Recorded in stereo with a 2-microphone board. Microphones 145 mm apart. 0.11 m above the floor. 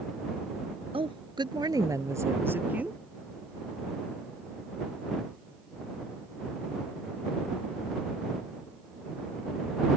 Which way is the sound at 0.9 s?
40° right (ahead or behind).